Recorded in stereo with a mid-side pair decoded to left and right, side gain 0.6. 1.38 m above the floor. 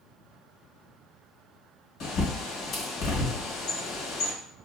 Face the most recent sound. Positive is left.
turn(degrees=60)